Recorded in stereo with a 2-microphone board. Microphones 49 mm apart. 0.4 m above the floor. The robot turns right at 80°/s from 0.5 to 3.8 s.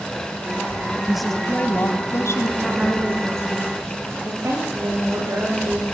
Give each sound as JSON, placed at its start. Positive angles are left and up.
{"t": 1.1, "sound": "a woman speaking", "azimuth_deg": -10, "distance_m": 2.5}
{"t": 2.6, "sound": "a woman speaking", "azimuth_deg": -175, "distance_m": 9.0}